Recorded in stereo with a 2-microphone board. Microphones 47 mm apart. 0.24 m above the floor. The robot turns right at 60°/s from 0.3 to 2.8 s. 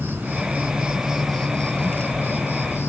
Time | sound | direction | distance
0.0 | an insect | 55° right | 1.8 m